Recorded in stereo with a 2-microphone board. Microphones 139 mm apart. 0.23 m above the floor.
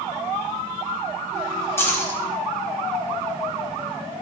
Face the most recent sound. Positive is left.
turn(degrees=20)  # may be behind; listen again after turning